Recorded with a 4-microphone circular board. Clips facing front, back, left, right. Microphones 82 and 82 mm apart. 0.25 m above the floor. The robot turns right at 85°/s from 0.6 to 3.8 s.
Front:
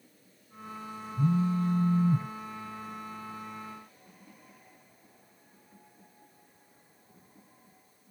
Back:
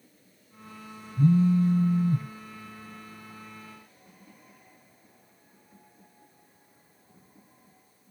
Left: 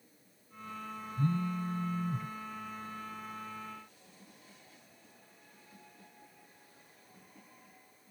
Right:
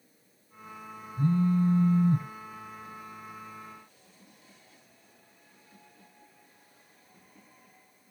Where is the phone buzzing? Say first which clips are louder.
Back 6 dB, right 8 dB; 160° right, 0.7 m; by 2.3 s 70° right, 0.7 m.